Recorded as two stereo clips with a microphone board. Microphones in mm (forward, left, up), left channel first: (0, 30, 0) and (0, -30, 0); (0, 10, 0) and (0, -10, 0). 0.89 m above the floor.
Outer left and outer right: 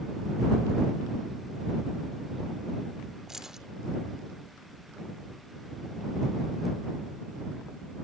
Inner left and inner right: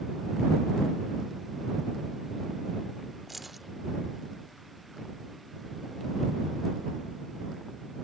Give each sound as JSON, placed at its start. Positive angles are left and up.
{"t": 3.3, "sound": "keys jangling", "side_deg": -5}